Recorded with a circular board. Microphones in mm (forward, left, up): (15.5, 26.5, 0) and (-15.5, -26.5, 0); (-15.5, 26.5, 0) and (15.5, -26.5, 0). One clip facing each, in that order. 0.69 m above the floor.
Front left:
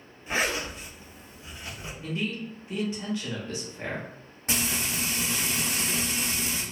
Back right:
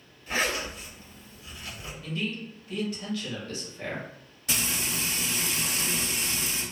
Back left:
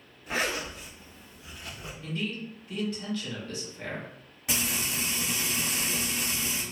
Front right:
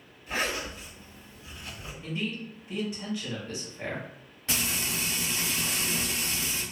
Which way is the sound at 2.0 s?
5° left.